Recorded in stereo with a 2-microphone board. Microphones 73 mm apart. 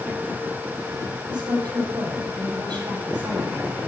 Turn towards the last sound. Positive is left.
turn(degrees=-70)  # may be behind; listen again after turning